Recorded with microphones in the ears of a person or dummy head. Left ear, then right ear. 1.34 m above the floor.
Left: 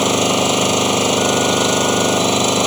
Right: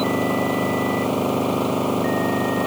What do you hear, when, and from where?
0.0 s an engine running: 85° left